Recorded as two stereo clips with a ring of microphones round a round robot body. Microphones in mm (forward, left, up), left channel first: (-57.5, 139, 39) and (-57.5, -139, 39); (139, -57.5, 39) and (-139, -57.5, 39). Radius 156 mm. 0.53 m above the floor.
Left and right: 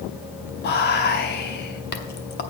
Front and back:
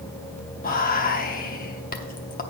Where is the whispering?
50° left, 0.9 m.